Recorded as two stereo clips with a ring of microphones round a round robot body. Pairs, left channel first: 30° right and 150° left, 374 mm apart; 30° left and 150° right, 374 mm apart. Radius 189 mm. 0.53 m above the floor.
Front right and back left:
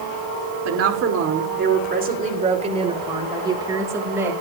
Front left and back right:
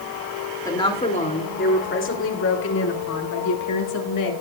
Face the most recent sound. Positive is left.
turn(degrees=65)